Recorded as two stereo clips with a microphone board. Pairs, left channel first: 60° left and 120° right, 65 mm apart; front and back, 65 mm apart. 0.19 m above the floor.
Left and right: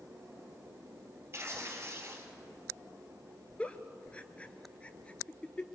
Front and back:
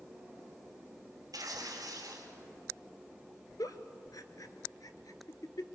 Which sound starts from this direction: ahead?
A giggle, at 3.6 s.